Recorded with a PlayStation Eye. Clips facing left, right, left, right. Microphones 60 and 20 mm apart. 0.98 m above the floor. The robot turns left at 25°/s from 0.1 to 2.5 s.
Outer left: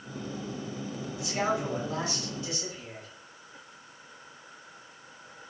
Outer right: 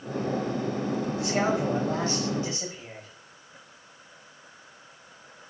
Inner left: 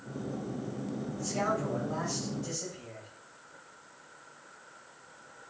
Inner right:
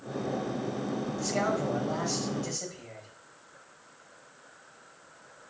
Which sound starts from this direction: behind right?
A man speaking, at 1.2 s.